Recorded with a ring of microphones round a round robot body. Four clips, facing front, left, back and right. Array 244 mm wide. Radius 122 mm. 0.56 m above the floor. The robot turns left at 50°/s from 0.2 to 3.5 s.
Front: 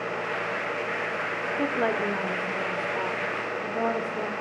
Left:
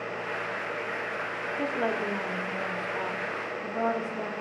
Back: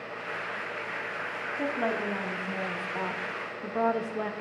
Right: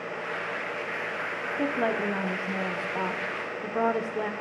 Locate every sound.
1.6 s a woman speaking: 20° right, 0.7 m; by 4.3 s 115° right, 0.7 m